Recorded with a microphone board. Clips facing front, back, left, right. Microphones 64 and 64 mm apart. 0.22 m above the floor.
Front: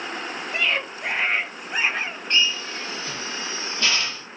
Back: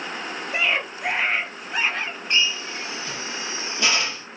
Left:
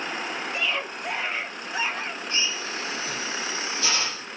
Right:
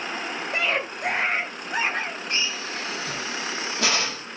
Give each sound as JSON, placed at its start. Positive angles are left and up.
{"t": 0.5, "sound": "a scream", "azimuth_deg": -110, "distance_m": 3.5}
{"t": 2.3, "sound": "a drill", "azimuth_deg": -100, "distance_m": 4.5}